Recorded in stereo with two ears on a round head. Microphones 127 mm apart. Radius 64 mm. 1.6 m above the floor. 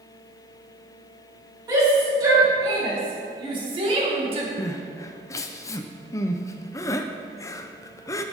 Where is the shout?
25° right (ahead or behind), 3 m; by 4.5 s 45° right (ahead or behind), 1.9 m.